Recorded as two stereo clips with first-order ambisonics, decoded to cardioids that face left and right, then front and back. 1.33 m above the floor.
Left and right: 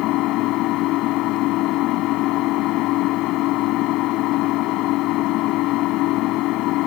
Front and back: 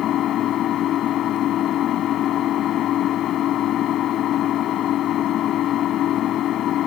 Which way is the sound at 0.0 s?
55° left.